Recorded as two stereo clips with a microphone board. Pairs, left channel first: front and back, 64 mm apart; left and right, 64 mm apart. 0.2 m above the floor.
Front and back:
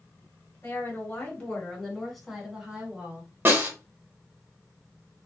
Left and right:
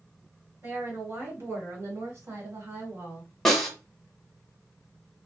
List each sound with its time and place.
0.6 s a woman speaking: 50° right, 1.8 m; by 3.3 s 125° right, 1.8 m
3.5 s a snare drum: 175° left, 1.2 m